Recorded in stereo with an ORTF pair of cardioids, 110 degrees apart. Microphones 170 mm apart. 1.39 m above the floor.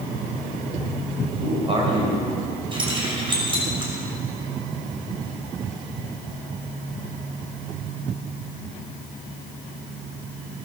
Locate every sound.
1.4 s a man speaking: 35° right, 6.5 m; by 2.6 s 25° right, 7.5 m
2.7 s keys jangling: 30° right, 5.5 m